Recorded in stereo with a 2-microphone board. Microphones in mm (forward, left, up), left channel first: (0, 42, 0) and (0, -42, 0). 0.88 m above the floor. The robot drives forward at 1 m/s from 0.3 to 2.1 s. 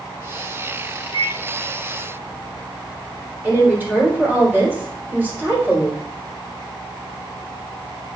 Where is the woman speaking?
20° right (ahead or behind), 3.5 m.